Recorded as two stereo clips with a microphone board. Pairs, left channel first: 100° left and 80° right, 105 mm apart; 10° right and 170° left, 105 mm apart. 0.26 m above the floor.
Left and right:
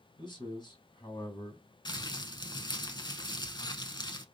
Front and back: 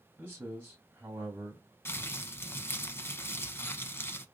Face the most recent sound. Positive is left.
turn(degrees=55)